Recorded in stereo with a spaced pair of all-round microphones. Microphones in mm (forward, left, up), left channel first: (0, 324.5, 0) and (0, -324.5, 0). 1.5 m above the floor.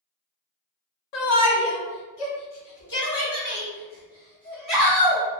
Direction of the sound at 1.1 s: 85° left.